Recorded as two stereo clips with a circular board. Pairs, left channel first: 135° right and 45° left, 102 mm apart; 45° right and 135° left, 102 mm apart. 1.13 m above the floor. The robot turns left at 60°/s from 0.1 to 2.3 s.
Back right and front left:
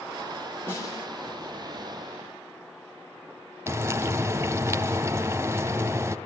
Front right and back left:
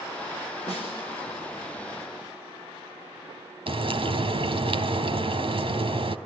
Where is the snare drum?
65° right, 6.5 m; by 1.1 s 90° right, 6.5 m.